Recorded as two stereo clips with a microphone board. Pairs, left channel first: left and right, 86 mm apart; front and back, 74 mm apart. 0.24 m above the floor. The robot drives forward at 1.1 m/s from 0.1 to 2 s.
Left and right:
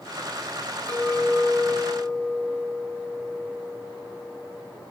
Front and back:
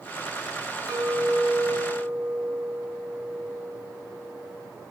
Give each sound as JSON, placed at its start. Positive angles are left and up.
{"t": 0.9, "sound": "a clink", "azimuth_deg": 165, "distance_m": 2.0}